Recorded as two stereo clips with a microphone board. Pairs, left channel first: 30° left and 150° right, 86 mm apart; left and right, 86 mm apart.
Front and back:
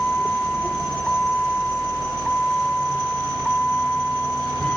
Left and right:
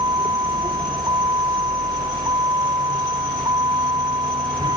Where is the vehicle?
50° right.